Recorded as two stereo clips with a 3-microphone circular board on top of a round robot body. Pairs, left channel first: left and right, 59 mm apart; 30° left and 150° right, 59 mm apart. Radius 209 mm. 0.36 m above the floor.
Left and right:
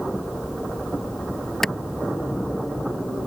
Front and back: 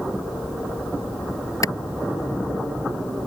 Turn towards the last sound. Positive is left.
turn(degrees=5)